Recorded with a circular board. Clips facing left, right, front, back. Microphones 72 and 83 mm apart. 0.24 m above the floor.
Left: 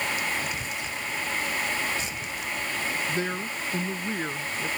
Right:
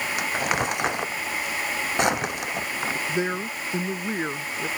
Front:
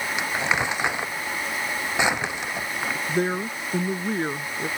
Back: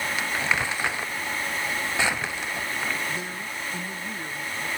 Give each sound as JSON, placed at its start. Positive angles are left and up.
{"t": 0.2, "sound": "crumpling", "azimuth_deg": -70}
{"t": 3.1, "sound": "a woman speaking", "azimuth_deg": -25}